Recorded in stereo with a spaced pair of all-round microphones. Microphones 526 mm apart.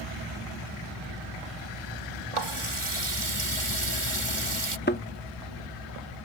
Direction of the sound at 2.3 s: 65° right (ahead or behind).